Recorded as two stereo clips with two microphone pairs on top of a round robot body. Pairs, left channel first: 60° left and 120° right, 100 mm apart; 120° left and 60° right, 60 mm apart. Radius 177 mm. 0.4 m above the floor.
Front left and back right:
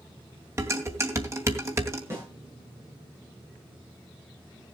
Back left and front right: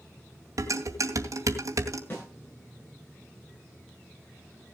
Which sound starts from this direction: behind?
A snare drum, at 2.1 s.